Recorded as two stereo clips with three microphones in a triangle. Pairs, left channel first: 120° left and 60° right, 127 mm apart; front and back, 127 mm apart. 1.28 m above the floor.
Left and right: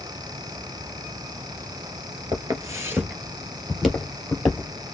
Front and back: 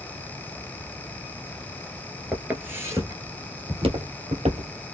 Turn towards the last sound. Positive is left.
turn(degrees=-170)